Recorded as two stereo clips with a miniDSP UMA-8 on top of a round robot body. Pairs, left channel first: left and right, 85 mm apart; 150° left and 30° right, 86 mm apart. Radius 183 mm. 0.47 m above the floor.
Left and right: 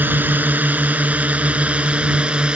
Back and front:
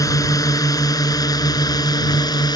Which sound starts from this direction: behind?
A drone, at 0.0 s.